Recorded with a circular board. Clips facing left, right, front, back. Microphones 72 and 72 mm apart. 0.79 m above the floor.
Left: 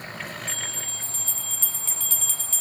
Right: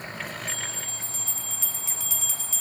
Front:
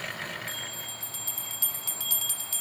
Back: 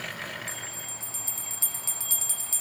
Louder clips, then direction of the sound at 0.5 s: Even, front 1 dB; 155° right.